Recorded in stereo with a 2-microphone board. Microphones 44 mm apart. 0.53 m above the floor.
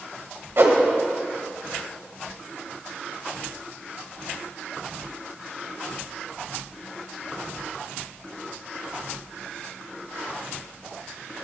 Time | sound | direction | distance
0.6 | a whoosh | 55° right (ahead or behind) | 1.3 m